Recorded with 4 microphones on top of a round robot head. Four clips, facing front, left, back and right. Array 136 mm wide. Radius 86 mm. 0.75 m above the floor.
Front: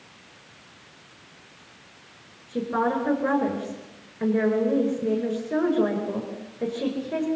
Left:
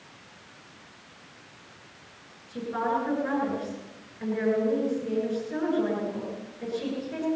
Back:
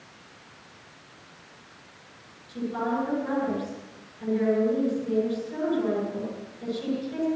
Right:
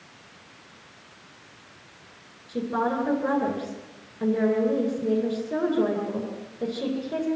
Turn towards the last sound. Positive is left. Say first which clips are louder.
# right 2 dB, front 4 dB
turn(degrees=-35)